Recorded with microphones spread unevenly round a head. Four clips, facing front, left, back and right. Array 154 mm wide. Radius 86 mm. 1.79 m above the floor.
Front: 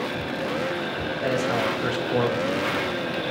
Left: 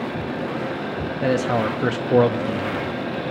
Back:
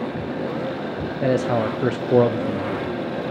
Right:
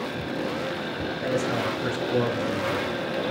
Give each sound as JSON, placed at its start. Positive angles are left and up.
{"t": 1.2, "sound": "a man speaking", "azimuth_deg": 145, "distance_m": 0.6}